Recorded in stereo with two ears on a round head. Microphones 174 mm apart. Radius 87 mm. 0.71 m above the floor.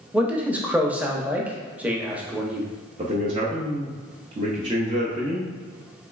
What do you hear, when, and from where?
0.1 s a man speaking: 10° right (ahead or behind), 0.7 m
3.0 s a man speaking: 30° right (ahead or behind), 0.7 m